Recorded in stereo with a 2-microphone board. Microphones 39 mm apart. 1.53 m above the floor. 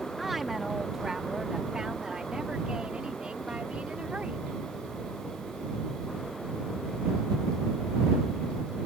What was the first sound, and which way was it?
A woman speaking, 5° right (ahead or behind).